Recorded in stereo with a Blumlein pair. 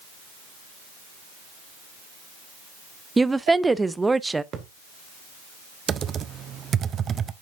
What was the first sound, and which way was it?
A woman speaking, 10° right.